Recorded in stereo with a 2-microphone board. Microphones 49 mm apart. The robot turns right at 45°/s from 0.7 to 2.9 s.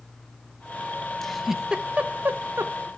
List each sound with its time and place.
1.2 s a giggle: 10° left (ahead or behind), 1.1 m; by 2.9 s 65° right (ahead or behind), 1.1 m